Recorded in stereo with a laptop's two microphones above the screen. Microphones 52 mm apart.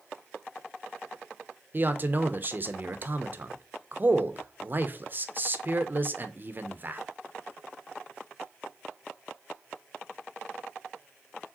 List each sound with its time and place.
1.7 s a man speaking: 40° right (ahead or behind), 0.6 m